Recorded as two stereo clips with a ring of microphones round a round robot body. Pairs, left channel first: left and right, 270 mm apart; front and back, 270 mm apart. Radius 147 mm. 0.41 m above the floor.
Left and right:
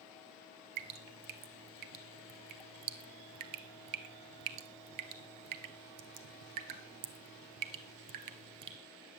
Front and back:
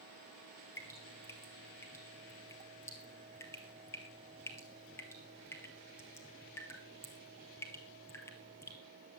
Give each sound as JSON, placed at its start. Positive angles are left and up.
{"t": 0.8, "sound": "dripping", "azimuth_deg": -80, "distance_m": 1.4}